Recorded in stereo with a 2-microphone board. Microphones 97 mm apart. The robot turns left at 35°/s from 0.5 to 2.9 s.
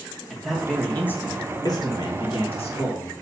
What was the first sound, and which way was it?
A man speaking, straight behind.